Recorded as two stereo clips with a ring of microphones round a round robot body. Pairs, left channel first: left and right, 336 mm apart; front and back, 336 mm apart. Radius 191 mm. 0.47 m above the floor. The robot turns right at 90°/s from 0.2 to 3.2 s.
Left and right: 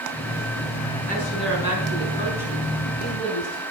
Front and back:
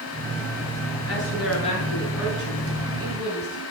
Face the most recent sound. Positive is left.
turn(degrees=-150)